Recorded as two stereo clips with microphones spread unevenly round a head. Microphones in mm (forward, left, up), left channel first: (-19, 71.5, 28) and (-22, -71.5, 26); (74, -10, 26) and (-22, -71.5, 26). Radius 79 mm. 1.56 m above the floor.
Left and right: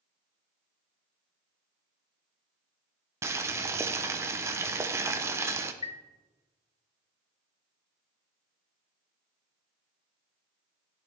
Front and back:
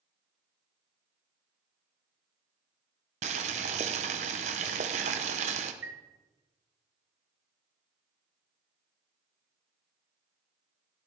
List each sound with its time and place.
3.2 s boiling: 160° right, 0.7 m
5.8 s a chime: 135° left, 0.5 m